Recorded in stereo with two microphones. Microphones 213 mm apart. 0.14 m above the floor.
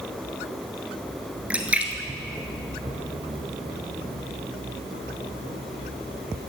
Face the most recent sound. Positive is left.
turn(degrees=-5)  # may be behind; listen again after turning